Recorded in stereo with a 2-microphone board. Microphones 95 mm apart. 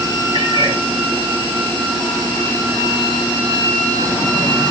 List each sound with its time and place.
0.3 s a cat meowing: 55° right (ahead or behind), 6 m